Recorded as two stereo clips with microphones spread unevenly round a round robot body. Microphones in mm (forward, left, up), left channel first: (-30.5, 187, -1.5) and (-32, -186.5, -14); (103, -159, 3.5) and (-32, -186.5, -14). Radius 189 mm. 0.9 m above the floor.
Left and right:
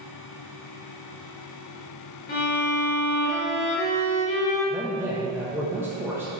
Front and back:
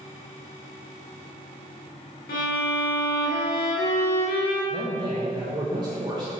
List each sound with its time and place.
2.3 s a violin: 20° left, 1.7 m
4.7 s a man speaking: 170° right, 0.8 m